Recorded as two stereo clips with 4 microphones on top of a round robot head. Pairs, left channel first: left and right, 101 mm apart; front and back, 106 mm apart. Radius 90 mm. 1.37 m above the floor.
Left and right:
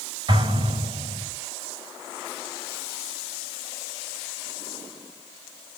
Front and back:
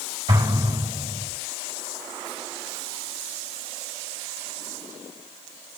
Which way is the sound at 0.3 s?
125° right.